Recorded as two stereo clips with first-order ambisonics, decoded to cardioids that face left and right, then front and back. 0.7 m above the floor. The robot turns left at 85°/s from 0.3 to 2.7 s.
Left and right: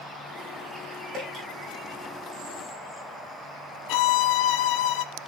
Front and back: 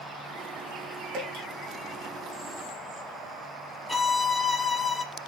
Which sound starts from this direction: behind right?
Dripping, at 1.1 s.